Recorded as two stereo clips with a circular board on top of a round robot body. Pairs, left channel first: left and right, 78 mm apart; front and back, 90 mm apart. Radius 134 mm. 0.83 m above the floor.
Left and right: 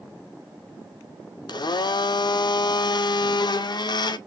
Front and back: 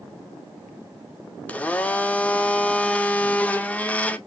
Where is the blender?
75° left, 0.6 m.